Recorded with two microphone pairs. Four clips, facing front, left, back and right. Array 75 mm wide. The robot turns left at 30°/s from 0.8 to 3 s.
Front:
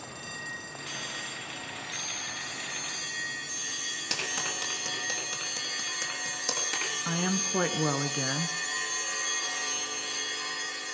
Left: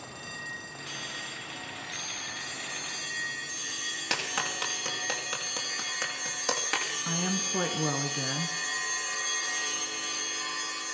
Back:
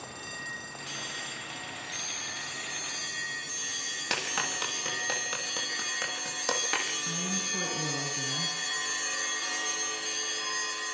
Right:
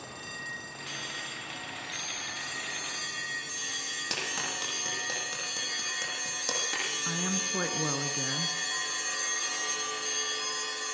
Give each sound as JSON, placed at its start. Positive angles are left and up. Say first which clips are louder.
{"t": 4.1, "sound": "a clap", "louder": "left 4 dB, back 3 dB", "azimuth_deg": 135, "distance_m": 7.0}
{"t": 7.0, "sound": "a woman speaking", "louder": "left 1 dB, front 4 dB", "azimuth_deg": -15, "distance_m": 2.0}